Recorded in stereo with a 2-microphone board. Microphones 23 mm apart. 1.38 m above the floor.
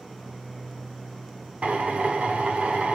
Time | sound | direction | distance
1.6 | a drill | 65° right (ahead or behind) | 2.5 m